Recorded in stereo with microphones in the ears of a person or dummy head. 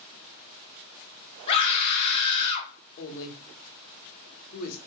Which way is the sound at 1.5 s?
30° left (ahead or behind).